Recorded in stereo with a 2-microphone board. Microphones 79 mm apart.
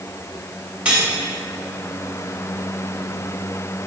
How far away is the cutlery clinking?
About 2.5 m.